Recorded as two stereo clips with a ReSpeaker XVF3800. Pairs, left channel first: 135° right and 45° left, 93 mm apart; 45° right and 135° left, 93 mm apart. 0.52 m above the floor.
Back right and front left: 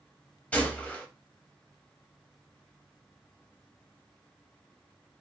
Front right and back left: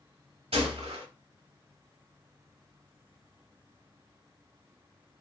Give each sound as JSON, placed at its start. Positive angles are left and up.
{"t": 0.5, "sound": "a gunshot", "azimuth_deg": 150, "distance_m": 0.8}